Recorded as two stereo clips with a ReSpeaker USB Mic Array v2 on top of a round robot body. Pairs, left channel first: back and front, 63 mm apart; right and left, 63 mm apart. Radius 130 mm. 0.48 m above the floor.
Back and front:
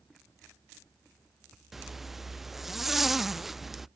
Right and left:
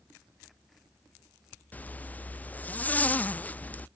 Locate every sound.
1.7 s a zipper: 80° right